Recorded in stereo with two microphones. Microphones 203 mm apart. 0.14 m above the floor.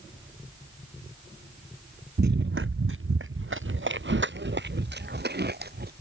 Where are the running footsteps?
55° right (ahead or behind); by 5.9 s 50° right (ahead or behind).